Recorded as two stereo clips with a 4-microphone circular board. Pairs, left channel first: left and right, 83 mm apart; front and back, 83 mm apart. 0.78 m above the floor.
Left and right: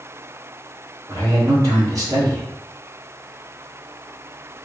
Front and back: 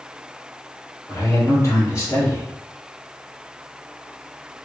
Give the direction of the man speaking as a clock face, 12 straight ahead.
2 o'clock.